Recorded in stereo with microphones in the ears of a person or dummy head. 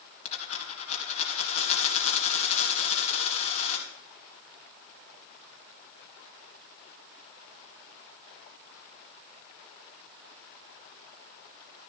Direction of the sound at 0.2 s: 45° left (ahead or behind).